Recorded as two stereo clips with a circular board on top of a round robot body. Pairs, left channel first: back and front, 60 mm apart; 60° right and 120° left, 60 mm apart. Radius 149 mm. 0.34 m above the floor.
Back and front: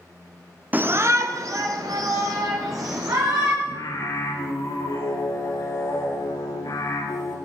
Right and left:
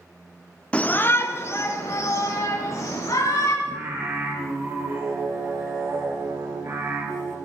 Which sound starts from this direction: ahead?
A shout, at 0.7 s.